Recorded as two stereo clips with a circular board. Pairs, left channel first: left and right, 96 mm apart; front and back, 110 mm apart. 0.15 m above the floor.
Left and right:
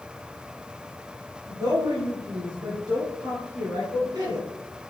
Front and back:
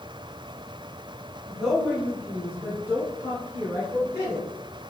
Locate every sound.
1.5 s a woman speaking: 95° right, 1.9 m; by 4.5 s 120° right, 3 m